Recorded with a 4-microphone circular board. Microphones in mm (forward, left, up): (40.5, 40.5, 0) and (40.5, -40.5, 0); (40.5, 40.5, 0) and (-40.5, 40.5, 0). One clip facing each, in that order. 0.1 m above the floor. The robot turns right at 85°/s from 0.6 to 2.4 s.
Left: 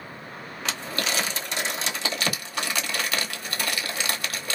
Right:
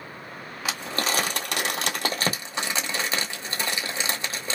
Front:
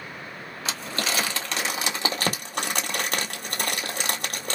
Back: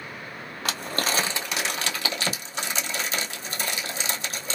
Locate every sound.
0.7 s crumpling: 170° right, 1.1 m; by 4.5 s 20° right, 1.1 m